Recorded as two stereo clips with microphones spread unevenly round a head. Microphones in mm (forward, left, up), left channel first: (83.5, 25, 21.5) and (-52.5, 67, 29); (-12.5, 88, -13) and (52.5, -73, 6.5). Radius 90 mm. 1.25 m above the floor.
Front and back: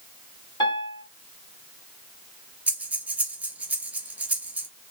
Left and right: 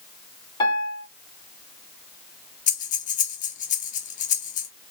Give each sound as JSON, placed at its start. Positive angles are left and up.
{"t": 0.6, "sound": "a piano", "azimuth_deg": 45, "distance_m": 1.7}
{"t": 2.7, "sound": "breathing", "azimuth_deg": 95, "distance_m": 0.8}